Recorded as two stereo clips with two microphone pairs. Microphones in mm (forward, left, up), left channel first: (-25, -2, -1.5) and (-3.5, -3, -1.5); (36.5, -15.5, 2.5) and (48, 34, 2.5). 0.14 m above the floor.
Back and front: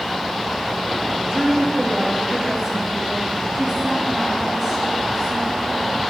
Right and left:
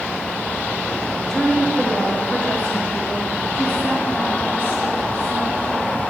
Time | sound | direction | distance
1.3 | a woman speaking | 25° right | 2.5 m